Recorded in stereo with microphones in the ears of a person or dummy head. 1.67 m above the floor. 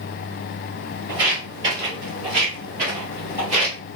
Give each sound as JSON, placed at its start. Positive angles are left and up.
{"t": 1.1, "sound": "footsteps", "side_deg": -15, "distance_m": 1.8}